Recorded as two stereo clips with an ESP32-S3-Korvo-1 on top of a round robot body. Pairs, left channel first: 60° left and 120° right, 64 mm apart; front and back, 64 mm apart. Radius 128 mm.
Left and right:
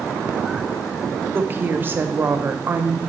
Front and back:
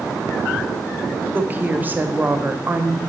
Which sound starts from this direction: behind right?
A woman speaking, at 1.3 s.